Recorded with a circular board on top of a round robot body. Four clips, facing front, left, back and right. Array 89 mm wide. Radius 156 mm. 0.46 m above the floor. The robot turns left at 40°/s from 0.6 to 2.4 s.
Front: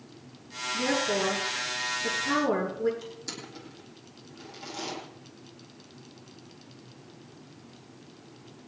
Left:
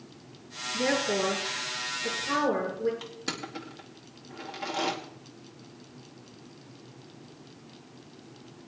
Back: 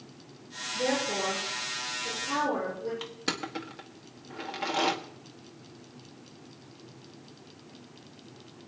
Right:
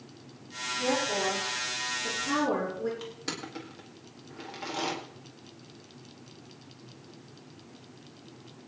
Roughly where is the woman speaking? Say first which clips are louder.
Left 2 dB, front 2 dB; ahead left.